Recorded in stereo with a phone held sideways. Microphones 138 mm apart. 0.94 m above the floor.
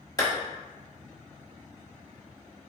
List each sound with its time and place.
0.2 s a clap: 25° left (ahead or behind), 1.2 m